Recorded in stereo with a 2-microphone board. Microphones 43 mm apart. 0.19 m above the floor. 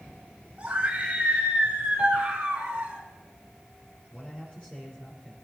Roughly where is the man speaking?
Left.